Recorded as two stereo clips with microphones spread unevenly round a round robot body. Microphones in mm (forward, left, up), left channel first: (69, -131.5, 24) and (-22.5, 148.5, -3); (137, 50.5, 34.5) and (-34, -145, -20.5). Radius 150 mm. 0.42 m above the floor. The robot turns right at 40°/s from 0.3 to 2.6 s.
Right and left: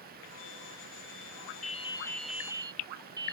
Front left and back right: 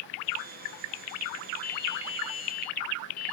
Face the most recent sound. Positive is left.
turn(degrees=30)